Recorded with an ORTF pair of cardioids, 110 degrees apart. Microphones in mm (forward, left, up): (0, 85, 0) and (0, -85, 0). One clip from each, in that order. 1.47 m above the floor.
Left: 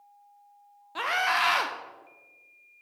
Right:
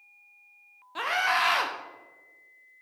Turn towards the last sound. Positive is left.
turn(degrees=5)